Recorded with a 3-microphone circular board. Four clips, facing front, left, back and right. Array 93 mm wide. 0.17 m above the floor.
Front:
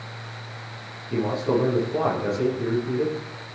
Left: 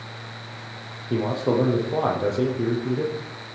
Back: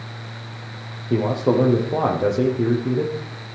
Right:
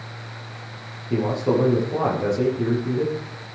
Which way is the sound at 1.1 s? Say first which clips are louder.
Right 1 dB, back 4 dB; 165° left.